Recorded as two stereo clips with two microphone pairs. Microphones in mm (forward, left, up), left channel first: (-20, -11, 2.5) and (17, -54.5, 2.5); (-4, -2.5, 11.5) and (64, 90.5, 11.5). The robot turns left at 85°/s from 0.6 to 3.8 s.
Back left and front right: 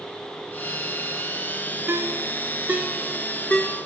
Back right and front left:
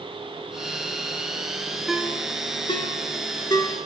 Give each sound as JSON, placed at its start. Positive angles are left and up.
{"t": 1.9, "sound": "a ringtone", "azimuth_deg": -30, "distance_m": 0.9}